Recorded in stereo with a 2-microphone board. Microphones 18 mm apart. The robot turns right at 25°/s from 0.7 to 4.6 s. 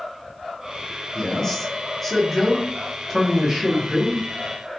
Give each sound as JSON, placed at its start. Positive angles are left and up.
{"t": 1.1, "sound": "a man speaking", "azimuth_deg": 140, "distance_m": 0.8}